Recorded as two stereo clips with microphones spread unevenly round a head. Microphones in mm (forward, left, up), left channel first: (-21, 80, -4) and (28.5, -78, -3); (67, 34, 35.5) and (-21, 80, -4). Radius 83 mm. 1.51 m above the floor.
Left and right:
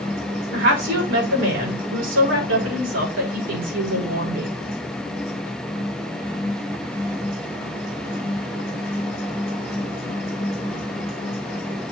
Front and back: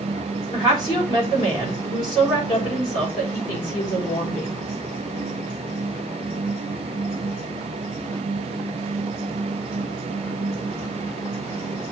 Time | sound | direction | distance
0.5 | a woman speaking | 90° right | 3.5 m